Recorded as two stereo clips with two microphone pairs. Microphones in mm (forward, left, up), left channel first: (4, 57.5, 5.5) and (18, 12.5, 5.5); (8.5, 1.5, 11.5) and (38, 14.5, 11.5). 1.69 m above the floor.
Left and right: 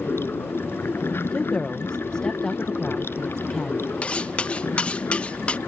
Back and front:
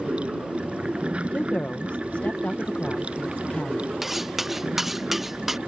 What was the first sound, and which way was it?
Running water, 70° left.